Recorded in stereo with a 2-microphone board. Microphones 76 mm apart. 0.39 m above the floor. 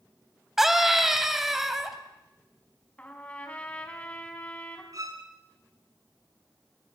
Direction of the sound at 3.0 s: 15° left (ahead or behind).